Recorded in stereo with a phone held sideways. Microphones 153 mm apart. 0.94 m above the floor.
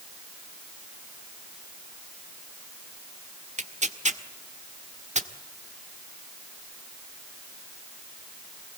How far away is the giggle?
No giggle in this recording.